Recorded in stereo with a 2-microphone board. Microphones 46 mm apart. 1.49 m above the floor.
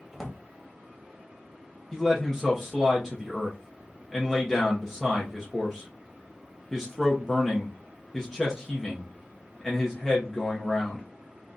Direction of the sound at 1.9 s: Centre (ahead or behind).